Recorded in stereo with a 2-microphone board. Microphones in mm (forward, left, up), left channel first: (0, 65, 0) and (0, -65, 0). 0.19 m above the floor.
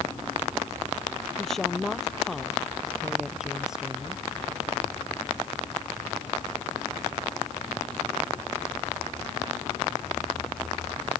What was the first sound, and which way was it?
A woman speaking, centre (ahead or behind).